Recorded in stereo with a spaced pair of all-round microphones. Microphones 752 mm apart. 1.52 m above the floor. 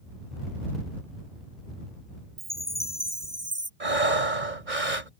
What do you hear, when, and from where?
2.4 s a chime: 30° right (ahead or behind)
3.8 s breathing: 80° right